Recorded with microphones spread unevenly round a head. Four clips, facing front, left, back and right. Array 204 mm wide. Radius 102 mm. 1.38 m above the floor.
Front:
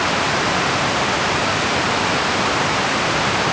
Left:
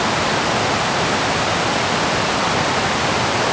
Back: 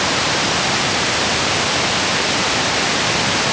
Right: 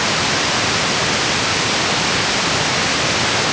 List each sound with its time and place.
Only background noise.